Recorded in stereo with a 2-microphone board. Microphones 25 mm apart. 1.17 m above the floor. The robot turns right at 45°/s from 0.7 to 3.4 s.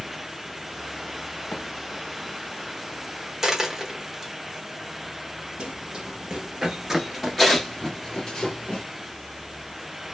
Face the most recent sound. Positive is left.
turn(degrees=40)  # may be behind; listen again after turning